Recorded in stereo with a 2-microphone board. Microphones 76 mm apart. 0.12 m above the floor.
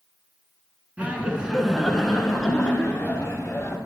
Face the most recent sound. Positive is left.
turn(degrees=25)  # may be behind; listen again after turning